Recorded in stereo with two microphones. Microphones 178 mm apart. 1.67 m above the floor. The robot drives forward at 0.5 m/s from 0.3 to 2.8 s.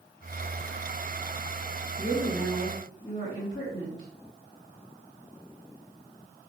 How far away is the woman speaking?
About 2 m.